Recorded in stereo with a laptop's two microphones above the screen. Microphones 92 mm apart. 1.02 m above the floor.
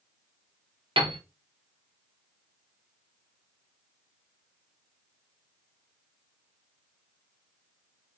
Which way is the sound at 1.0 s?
70° right (ahead or behind).